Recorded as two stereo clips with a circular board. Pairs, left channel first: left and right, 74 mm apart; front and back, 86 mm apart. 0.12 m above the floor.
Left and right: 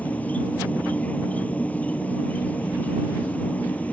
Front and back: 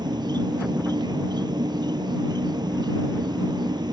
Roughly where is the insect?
Behind left.